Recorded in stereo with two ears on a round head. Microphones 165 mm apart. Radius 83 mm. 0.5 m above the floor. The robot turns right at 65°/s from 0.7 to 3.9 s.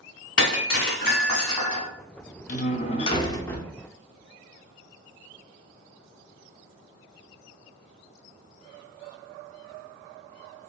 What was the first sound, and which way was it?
Breaking glass, 105° left.